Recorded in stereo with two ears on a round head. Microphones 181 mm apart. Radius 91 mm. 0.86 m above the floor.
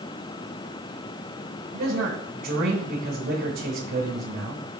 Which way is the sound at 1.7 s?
45° right (ahead or behind).